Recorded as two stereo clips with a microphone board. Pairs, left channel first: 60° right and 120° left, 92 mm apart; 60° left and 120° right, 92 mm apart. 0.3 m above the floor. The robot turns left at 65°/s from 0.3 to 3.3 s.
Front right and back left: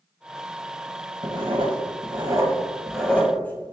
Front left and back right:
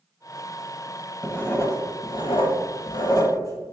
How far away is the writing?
About 0.5 m.